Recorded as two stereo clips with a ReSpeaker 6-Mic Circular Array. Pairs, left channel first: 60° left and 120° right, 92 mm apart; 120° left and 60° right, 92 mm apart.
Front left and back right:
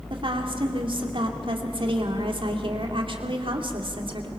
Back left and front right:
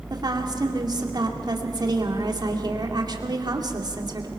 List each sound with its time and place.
0.1 s a woman speaking: 100° right, 2.5 m